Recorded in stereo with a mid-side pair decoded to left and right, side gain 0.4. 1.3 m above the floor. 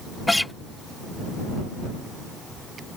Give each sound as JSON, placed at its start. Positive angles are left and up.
{"t": 0.3, "sound": "a guitar", "azimuth_deg": 15}